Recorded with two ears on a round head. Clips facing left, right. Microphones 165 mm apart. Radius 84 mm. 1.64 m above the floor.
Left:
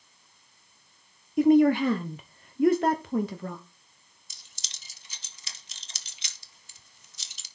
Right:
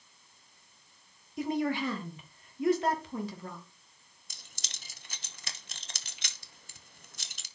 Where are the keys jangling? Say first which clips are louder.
Right 4 dB; 45° right (ahead or behind), 1.0 m.